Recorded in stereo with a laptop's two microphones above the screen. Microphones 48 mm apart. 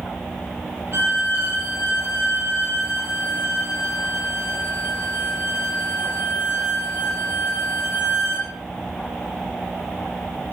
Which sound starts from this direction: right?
A violin, at 0.9 s.